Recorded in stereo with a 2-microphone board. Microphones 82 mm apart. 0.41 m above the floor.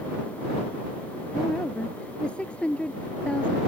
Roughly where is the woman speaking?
Centre.